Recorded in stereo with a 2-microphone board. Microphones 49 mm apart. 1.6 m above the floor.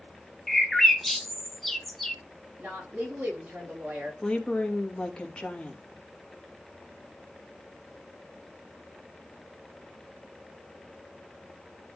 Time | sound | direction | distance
0.5 | a bird | centre (ahead or behind) | 1.0 m
2.6 | a woman speaking | 45° right (ahead or behind) | 4 m
4.2 | a woman speaking | 20° left (ahead or behind) | 2 m